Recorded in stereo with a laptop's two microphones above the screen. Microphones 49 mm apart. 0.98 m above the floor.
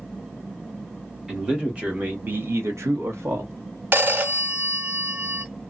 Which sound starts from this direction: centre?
A man speaking, at 1.3 s.